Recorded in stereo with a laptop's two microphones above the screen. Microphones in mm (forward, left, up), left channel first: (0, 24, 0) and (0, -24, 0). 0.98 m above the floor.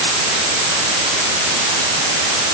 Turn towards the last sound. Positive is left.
No sound to turn to.